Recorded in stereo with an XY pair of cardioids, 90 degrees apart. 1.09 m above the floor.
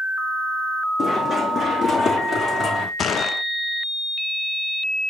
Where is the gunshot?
60° left, 0.7 m.